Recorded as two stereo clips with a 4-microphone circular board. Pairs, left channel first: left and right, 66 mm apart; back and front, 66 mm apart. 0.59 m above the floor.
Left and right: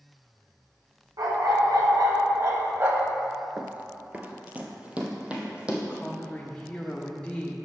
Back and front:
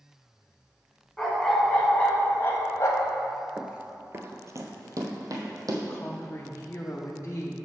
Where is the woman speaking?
160° left, 0.7 m.